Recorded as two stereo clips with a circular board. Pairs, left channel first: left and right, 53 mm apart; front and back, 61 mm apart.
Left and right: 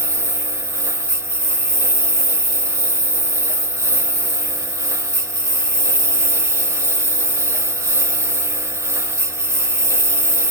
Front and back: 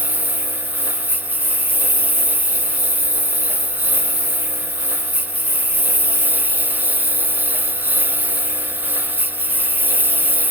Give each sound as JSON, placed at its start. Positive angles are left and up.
{"t": 0.0, "sound": "a lawn mower", "azimuth_deg": -120}